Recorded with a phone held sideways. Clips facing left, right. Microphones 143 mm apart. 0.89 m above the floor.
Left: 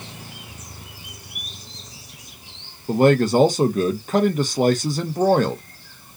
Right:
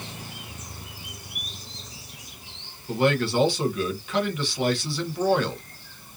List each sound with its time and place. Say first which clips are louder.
2.9 s a man speaking: left 7 dB; 45° left (ahead or behind), 0.6 m